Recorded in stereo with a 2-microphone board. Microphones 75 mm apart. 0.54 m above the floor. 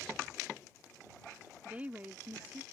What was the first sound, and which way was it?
A woman speaking, 20° right (ahead or behind).